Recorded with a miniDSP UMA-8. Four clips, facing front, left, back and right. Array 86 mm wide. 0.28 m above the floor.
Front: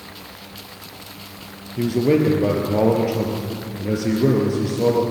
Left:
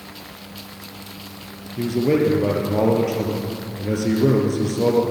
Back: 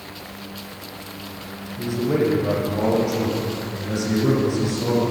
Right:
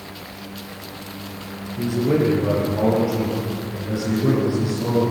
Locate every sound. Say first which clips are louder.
1.8 s a man speaking: left 1 dB, front 4 dB; 30° left, 5.5 m; by 5.0 s 55° left, 5.5 m